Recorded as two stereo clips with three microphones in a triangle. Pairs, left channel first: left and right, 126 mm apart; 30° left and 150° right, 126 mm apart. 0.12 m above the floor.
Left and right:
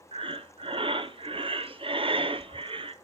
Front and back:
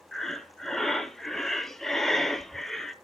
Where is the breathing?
55° right, 0.6 m.